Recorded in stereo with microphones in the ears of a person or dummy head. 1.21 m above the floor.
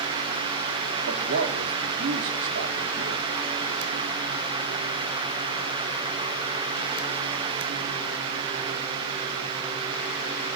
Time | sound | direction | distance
1.1 | a man speaking | 70° right (ahead or behind) | 3 m